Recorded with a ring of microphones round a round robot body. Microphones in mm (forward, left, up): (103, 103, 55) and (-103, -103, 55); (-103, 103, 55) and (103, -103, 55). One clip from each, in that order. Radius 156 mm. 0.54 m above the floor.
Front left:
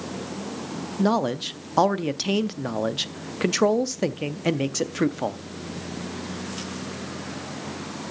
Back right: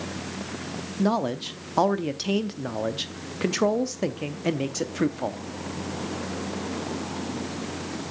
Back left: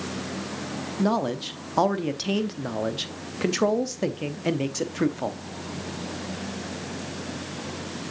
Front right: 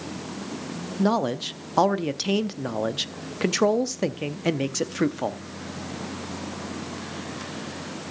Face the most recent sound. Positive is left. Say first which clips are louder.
# front left 2 dB, front right 2 dB
turn(degrees=0)